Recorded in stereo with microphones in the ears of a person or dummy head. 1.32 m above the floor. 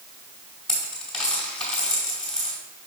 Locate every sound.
0.7 s a dropped coin: centre (ahead or behind), 2.5 m